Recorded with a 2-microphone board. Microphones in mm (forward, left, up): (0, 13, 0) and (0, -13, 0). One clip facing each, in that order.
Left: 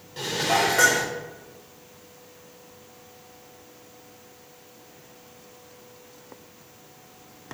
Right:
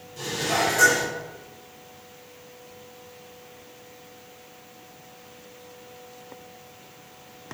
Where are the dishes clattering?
40° left (ahead or behind), 0.9 m.